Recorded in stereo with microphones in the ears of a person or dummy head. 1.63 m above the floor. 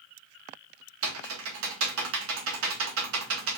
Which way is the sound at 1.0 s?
75° right (ahead or behind).